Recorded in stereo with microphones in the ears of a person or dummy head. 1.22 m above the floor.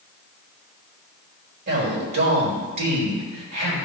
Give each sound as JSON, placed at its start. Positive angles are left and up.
{"t": 1.7, "sound": "a man speaking", "side_deg": -60, "distance_m": 4.5}